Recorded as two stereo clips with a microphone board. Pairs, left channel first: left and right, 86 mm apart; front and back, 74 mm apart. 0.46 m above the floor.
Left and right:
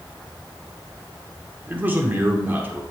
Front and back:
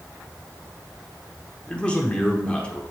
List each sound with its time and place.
1.7 s a man speaking: 55° right, 1.0 m